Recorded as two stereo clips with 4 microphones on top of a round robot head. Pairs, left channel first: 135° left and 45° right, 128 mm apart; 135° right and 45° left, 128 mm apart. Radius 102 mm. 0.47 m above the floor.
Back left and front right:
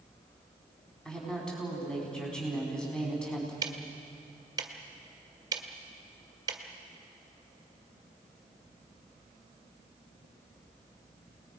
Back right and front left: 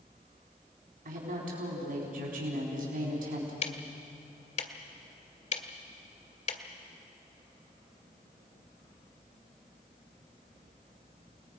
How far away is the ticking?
About 1.7 m.